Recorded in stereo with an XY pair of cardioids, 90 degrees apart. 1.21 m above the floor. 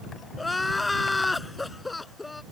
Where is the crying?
20° left.